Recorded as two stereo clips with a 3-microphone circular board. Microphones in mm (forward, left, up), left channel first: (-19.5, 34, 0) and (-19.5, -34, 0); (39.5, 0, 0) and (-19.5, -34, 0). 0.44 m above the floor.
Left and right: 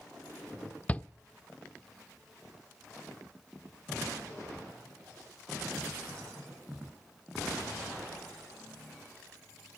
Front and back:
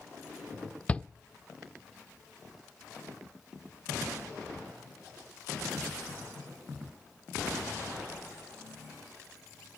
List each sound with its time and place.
0.9 s a shout: 60° left, 0.8 m